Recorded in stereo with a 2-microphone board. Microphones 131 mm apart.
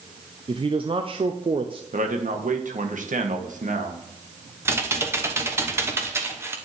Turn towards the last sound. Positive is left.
turn(degrees=-20)  # may be behind; listen again after turning